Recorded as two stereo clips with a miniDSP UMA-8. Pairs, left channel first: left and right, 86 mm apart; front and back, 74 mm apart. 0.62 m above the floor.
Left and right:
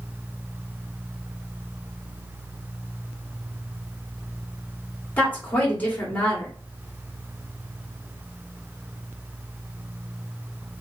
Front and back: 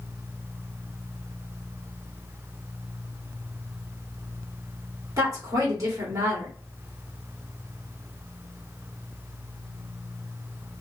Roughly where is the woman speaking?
Behind.